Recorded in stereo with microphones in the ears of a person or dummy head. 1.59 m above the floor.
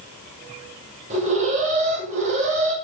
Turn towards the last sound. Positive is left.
turn(degrees=-40)  # may be behind; listen again after turning